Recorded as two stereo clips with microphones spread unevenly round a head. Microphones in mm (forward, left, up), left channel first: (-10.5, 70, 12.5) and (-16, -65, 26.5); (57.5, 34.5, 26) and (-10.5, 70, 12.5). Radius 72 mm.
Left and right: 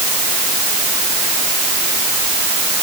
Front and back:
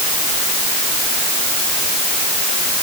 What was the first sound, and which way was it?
Only background noise.